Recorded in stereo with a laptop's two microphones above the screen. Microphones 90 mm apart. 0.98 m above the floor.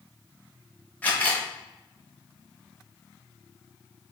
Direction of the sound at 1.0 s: 15° left (ahead or behind).